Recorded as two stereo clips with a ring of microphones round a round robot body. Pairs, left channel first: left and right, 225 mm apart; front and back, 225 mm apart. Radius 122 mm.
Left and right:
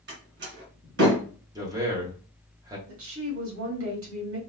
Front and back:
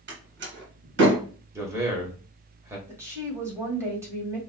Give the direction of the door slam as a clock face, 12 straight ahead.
5 o'clock.